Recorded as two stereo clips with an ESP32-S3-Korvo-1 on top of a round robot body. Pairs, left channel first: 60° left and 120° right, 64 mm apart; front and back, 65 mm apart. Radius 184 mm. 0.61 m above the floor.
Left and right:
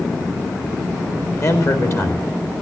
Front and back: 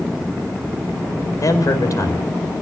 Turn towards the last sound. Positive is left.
turn(degrees=25)